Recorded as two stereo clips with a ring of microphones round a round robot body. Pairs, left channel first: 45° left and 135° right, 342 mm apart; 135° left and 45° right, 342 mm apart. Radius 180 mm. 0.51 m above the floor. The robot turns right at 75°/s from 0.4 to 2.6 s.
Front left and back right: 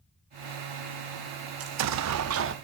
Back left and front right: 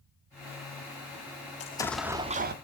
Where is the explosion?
165° right, 0.5 m; by 2.5 s 95° right, 0.5 m.